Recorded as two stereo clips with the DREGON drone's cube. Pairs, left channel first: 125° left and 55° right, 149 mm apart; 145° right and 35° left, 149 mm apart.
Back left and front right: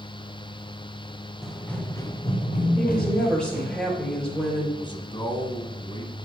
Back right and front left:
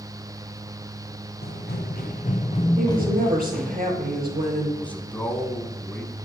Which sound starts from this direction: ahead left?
A woman speaking, at 2.8 s.